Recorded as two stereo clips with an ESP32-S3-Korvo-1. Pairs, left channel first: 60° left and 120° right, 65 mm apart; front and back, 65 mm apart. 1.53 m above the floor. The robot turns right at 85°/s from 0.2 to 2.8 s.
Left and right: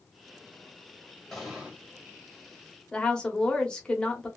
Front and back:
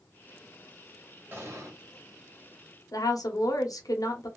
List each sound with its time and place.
1.3 s an explosion: 140° left, 1.7 m; by 1.8 s straight behind, 1.7 m
2.9 s a woman speaking: 15° right, 1.0 m